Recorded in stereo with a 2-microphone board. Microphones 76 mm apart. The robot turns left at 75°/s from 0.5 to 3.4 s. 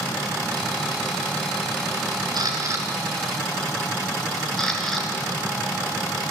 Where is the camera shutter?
65° right (ahead or behind), 3 m; by 6.3 s 5° left (ahead or behind), 3 m.